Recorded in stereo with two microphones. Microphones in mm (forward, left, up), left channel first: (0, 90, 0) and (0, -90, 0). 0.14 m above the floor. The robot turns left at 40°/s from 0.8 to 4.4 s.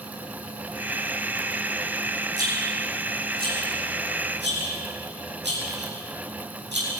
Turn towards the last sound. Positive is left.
turn(degrees=-75)  # may be behind; listen again after turning